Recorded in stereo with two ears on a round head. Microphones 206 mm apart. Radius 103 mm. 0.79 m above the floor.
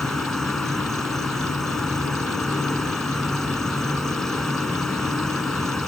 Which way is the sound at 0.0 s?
Centre (ahead or behind).